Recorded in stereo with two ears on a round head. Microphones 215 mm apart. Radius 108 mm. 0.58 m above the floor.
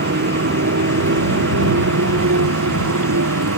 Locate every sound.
0.0 s a motorcycle: 45° right (ahead or behind); by 3.6 s 60° right (ahead or behind)